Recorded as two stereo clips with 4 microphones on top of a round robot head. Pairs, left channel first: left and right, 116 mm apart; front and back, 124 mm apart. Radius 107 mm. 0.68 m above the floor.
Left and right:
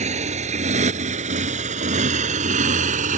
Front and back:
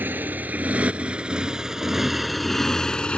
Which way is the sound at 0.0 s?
105° right.